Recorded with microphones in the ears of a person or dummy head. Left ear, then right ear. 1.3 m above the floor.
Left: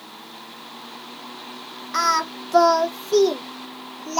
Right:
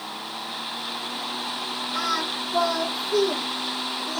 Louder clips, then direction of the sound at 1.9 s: Left 7 dB; 60° left (ahead or behind).